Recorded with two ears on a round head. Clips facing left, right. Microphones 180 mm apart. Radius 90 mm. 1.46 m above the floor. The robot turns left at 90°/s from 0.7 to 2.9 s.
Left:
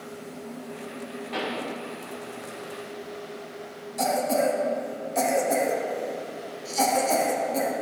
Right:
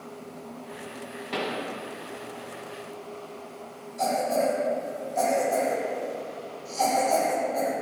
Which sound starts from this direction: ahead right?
A pop, at 1.3 s.